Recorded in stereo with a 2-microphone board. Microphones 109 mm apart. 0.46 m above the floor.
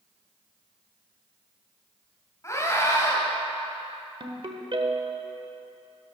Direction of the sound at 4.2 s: 55° right (ahead or behind).